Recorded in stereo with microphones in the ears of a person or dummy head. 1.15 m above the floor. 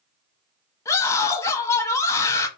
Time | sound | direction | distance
0.8 | a scream | 20° left (ahead or behind) | 0.8 m